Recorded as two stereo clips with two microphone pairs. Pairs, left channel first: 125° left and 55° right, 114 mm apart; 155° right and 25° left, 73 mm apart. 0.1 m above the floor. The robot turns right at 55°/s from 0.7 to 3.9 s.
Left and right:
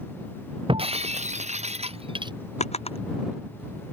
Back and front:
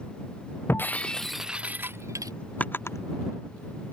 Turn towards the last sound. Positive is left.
turn(degrees=-150)